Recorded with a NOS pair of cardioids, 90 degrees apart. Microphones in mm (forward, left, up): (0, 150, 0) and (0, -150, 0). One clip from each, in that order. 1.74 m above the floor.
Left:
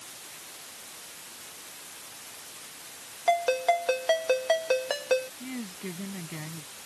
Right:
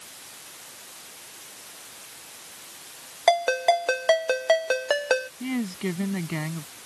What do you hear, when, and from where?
3.3 s a ringtone: 60° right
5.4 s a woman speaking: 65° right